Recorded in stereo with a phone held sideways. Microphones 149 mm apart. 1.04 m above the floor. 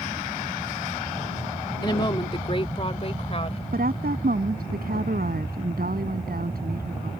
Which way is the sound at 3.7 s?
85° right.